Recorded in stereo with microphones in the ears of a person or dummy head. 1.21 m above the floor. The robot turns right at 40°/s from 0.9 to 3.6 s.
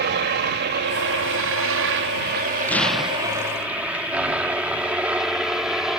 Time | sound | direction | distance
0.0 | a helicopter | 50° right (ahead or behind) | ?
2.7 | an explosion | 165° left | ?